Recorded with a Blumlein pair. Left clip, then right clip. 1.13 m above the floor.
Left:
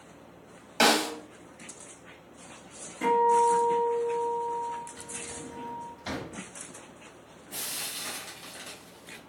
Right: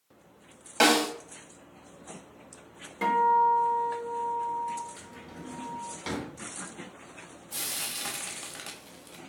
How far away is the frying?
About 0.8 m.